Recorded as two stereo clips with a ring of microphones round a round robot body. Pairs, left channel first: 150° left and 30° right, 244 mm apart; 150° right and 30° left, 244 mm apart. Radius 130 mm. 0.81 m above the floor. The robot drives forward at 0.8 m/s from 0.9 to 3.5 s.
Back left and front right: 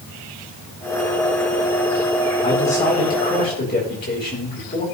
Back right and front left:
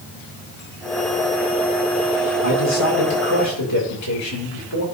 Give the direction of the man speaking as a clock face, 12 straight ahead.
5 o'clock.